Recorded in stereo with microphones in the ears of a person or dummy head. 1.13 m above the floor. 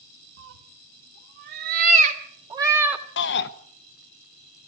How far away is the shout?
About 0.8 m.